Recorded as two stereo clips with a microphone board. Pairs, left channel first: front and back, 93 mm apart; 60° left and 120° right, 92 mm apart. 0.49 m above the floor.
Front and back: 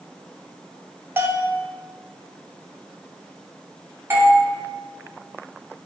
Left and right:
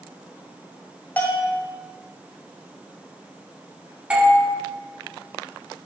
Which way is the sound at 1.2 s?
120° left.